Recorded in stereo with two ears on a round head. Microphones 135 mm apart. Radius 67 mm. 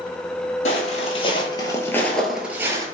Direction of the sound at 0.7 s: 45° left (ahead or behind).